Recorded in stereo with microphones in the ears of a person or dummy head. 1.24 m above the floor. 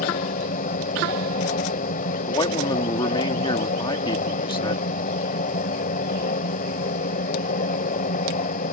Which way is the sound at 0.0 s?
50° left (ahead or behind).